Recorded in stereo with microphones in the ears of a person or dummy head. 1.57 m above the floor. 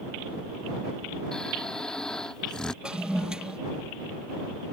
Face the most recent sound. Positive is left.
turn(degrees=0)  # may be behind; listen again after turning